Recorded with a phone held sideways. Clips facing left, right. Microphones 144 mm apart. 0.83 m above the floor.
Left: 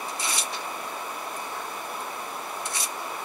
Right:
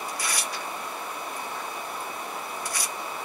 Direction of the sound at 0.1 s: 25° left (ahead or behind).